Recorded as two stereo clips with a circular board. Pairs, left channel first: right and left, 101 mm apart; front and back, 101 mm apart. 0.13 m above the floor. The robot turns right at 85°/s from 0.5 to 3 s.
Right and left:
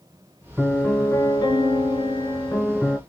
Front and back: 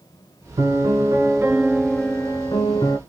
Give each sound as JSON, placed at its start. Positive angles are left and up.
{"t": 0.6, "sound": "a piano", "azimuth_deg": 170, "distance_m": 0.6}